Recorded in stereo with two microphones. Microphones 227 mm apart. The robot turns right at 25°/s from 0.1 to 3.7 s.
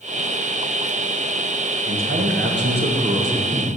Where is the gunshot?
No gunshot in this recording.